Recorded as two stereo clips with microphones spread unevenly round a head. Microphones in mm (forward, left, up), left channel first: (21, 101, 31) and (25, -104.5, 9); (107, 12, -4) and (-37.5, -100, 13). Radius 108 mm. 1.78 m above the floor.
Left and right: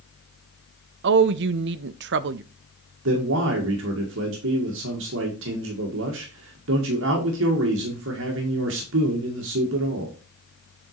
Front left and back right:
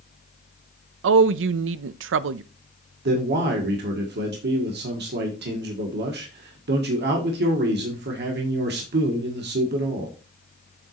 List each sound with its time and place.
1.0 s a woman speaking: 130° right, 0.5 m
3.0 s a man speaking: 125° right, 1.5 m